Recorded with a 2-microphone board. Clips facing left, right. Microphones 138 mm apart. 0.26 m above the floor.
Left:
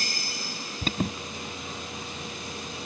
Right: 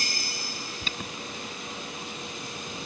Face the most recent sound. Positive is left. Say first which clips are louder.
# left 11 dB
turn(degrees=45)  # may be behind; listen again after turning